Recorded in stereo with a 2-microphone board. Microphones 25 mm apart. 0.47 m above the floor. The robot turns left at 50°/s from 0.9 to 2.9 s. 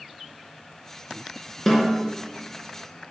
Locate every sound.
1.7 s a snare drum: 15° left (ahead or behind), 3 m; by 2.0 s 30° left (ahead or behind), 3 m